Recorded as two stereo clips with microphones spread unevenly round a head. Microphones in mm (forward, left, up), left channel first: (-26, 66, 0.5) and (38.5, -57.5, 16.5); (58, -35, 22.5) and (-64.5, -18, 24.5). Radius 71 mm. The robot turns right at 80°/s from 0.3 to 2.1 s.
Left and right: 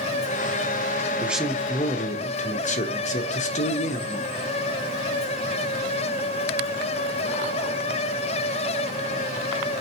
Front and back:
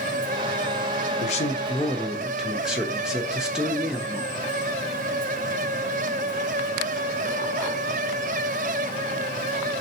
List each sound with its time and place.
1.2 s a man speaking: 15° left, 0.7 m; by 4.3 s 85° left, 0.7 m